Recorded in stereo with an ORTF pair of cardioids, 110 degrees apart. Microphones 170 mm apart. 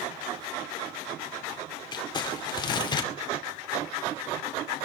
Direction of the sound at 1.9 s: 25° left.